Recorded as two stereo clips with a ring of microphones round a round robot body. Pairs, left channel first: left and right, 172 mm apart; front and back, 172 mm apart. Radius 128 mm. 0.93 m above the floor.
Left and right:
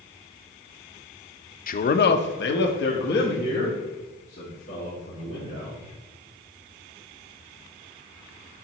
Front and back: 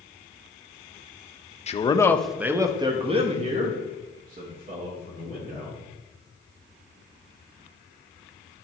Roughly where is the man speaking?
Ahead left.